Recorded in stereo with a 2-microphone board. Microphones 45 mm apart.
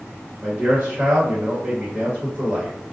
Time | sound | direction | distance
0.4 | a man speaking | 25° right (ahead or behind) | 1.0 m